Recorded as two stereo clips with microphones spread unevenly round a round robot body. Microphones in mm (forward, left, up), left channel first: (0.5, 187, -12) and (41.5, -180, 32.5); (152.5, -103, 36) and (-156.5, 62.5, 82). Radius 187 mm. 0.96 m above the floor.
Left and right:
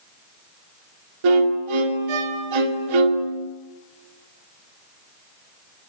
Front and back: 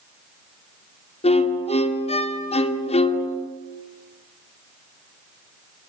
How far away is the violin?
About 2.5 m.